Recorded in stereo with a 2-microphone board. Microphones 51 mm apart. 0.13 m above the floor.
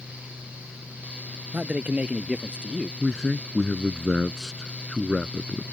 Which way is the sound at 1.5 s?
30° right (ahead or behind).